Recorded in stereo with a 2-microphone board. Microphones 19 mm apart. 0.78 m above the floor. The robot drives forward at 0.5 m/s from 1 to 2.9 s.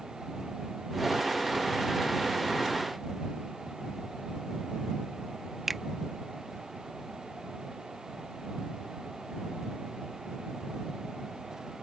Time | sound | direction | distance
5.7 | a finger snap | 5° right (ahead or behind) | ?